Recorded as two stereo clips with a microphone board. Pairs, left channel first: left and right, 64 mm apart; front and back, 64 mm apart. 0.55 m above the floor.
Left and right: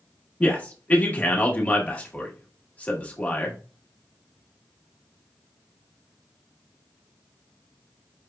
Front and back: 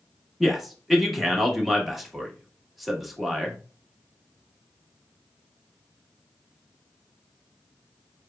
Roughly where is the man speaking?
Left.